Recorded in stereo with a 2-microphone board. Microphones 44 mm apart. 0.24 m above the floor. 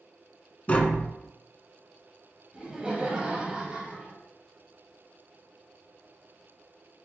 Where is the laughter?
25° right (ahead or behind), 1.0 m.